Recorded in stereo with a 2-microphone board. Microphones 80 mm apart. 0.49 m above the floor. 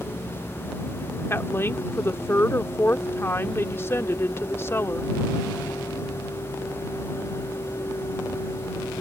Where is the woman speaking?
30° left (ahead or behind).